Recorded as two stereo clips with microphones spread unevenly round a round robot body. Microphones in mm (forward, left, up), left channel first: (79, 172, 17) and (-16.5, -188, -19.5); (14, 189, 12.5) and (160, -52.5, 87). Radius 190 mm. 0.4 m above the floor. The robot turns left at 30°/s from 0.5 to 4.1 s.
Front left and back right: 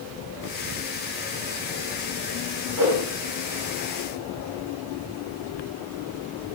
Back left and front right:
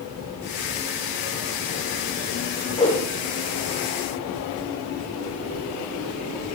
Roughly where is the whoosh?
Behind right.